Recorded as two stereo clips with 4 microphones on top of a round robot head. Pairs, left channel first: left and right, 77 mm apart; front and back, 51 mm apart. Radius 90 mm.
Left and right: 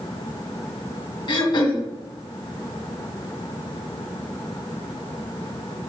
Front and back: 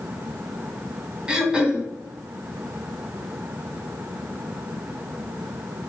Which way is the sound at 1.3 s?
110° left.